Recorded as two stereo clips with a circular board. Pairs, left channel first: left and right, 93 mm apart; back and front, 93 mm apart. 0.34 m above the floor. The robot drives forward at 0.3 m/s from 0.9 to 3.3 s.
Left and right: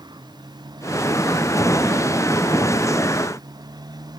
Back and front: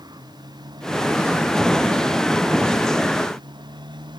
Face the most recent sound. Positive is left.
turn(degrees=-45)